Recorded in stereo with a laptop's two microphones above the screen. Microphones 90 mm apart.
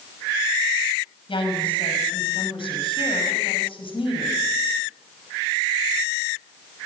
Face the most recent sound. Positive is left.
turn(degrees=80)